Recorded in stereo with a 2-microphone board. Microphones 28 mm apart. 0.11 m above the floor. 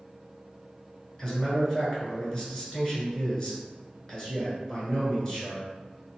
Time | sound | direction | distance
1.2 | a man speaking | 20° left (ahead or behind) | 1.4 m